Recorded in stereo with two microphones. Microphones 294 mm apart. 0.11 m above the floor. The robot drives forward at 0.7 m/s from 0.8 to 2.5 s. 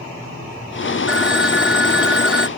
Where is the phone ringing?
5° right (ahead or behind).